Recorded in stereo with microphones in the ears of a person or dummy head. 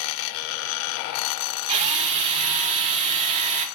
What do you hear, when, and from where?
1.7 s a drill: 35° right (ahead or behind), 0.6 m